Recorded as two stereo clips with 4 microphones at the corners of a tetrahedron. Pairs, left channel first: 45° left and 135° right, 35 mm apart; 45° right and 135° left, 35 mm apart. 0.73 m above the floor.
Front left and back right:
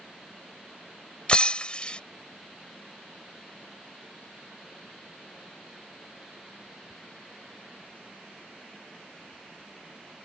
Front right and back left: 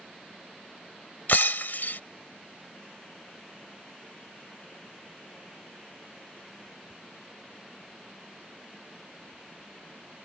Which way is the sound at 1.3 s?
15° right.